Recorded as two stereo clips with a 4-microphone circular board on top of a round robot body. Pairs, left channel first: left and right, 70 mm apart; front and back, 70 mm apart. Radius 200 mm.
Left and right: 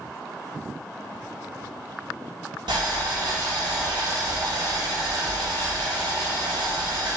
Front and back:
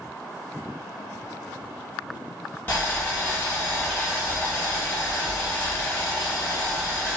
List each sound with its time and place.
2.7 s boiling: 70° right, 0.7 m